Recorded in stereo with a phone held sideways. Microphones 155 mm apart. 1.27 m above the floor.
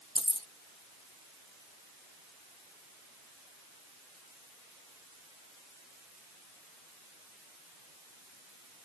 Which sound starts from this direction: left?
Keys jangling, at 0.1 s.